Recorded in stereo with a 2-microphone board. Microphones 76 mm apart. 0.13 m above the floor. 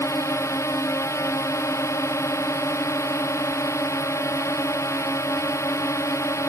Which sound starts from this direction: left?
A drone, at 0.0 s.